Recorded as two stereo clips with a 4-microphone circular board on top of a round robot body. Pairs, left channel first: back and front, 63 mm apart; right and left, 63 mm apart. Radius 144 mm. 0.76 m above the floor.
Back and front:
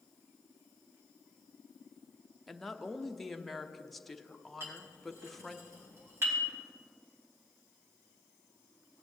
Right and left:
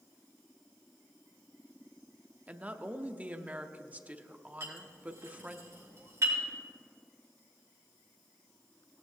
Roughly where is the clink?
Ahead left.